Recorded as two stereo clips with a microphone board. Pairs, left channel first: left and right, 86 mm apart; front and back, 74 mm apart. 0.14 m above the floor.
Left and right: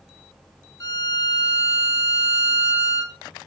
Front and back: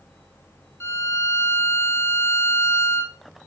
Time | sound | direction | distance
0.8 | a violin | 45° left | 0.7 m